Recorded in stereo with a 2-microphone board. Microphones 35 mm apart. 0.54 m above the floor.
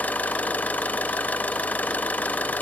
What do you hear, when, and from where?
0.0 s an engine running: 50° left (ahead or behind), 1.0 m